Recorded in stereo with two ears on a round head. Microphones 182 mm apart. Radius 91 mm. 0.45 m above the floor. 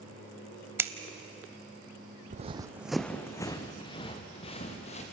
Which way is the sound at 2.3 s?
40° right (ahead or behind).